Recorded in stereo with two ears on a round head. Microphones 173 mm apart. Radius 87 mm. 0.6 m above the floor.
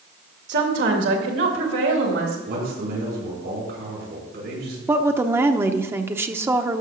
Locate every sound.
0.5 s a woman speaking: 60° right (ahead or behind), 2 m; by 2.4 s 70° right (ahead or behind), 3.5 m
2.5 s a man speaking: 55° right (ahead or behind), 6.5 m
4.9 s a woman speaking: 10° right (ahead or behind), 0.8 m